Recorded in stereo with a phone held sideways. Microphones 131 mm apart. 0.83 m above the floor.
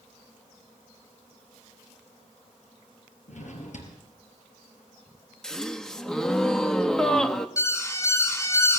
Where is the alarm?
20° left (ahead or behind), 2.5 m.